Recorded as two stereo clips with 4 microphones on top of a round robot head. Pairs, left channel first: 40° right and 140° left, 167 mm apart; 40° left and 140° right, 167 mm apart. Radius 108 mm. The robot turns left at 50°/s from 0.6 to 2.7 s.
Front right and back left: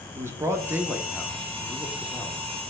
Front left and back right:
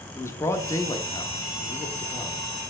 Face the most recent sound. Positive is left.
turn(degrees=-15)